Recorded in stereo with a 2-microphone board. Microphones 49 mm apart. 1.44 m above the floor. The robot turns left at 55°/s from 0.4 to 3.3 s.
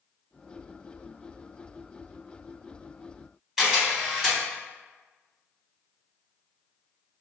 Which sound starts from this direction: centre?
A camera shutter, at 3.6 s.